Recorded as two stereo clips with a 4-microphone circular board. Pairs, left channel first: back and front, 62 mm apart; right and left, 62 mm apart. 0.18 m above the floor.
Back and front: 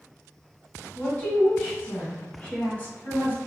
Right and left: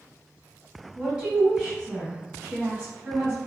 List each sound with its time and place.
0.9 s a woman speaking: 150° left, 1.4 m